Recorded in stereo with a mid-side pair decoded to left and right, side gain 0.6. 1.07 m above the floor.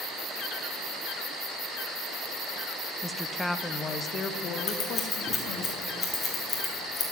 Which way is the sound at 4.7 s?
30° left.